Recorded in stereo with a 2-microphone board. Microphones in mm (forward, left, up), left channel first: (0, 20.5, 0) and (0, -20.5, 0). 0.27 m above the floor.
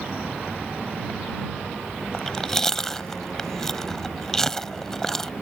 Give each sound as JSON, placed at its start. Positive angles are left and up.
{"t": 2.1, "sound": "chewing", "side_deg": 10}